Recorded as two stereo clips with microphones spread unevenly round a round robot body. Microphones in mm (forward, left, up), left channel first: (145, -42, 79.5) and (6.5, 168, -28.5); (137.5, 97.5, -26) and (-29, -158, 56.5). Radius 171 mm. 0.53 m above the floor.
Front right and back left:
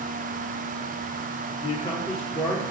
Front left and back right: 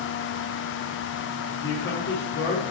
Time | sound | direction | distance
1.6 | a man speaking | 30° left | 1.5 m